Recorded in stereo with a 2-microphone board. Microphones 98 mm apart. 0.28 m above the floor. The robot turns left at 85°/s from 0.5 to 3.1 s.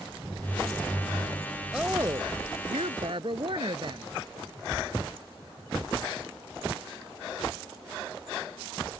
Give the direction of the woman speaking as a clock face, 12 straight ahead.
12 o'clock.